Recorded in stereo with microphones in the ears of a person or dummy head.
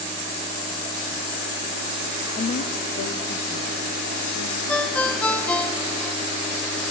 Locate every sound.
2.4 s a woman speaking: 30° left (ahead or behind), 0.7 m; by 5.7 s 80° left, 5 m
4.7 s a ringtone: 5° left (ahead or behind), 1.3 m